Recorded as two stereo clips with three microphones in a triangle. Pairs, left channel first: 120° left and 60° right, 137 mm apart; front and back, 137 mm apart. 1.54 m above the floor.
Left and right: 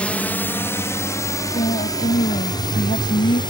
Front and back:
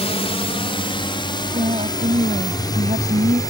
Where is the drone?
40° left; by 3.5 s 65° left.